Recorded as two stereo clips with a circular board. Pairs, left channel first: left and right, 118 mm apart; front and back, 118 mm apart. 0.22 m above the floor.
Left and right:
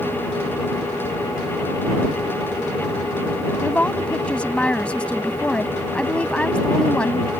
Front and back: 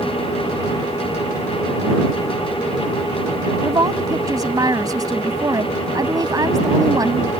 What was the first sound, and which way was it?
A woman speaking, 165° left.